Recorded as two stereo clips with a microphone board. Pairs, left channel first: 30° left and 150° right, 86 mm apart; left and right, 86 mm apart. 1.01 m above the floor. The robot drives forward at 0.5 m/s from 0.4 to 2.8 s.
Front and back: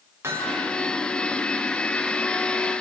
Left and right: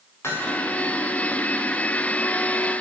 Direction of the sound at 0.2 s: 150° left.